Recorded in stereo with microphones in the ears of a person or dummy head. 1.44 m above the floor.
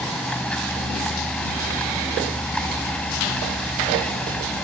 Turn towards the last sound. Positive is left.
turn(degrees=10)  # may be behind; listen again after turning